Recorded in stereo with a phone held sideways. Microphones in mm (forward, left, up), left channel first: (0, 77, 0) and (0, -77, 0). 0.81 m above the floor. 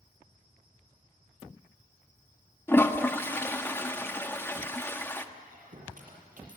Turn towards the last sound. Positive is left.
turn(degrees=-60)  # may be behind; listen again after turning